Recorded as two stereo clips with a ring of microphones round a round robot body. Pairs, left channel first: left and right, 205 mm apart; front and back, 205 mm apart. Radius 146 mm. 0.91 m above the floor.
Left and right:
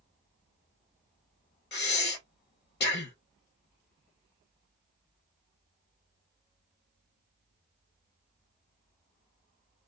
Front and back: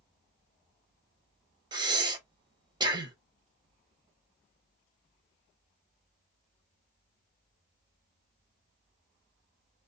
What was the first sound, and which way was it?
Breathing, 115° left.